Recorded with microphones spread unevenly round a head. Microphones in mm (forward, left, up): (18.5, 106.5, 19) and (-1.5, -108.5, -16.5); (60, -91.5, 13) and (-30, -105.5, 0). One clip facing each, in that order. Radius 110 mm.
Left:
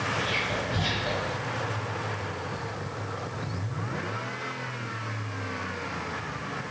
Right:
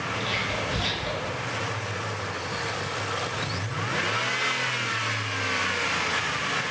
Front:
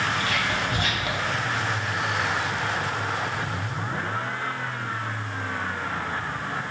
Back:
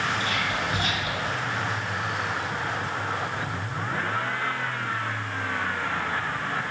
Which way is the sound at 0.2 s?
15° right.